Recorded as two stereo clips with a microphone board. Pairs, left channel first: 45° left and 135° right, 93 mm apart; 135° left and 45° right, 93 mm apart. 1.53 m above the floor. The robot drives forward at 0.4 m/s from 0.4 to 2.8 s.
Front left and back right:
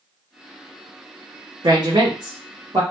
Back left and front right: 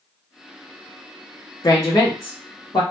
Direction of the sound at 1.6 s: 175° right.